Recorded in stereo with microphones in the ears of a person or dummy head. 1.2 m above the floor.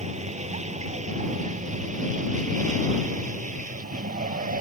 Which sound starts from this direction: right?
A vehicle, at 0.0 s.